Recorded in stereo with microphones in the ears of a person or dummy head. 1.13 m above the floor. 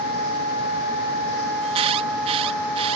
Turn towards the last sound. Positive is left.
turn(degrees=-35)  # may be behind; listen again after turning